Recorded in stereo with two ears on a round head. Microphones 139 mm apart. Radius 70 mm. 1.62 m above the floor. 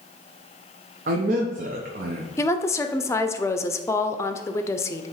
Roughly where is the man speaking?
Right.